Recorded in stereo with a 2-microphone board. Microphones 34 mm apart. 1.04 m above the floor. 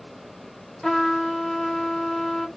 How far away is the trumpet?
About 0.6 m.